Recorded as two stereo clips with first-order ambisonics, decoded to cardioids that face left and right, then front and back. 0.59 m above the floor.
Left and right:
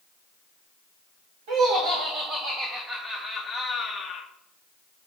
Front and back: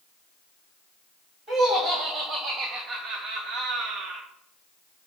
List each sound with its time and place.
1.5 s laughter: 115° right, 1.7 m; by 4.2 s 140° left, 1.1 m